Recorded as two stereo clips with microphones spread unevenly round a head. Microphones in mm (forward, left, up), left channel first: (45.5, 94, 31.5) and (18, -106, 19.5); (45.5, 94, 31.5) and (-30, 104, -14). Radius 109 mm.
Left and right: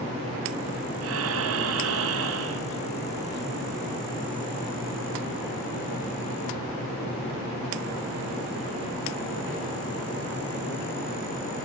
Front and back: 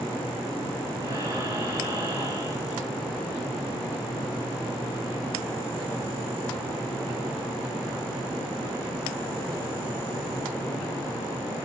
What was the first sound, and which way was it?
Breathing, 120° right.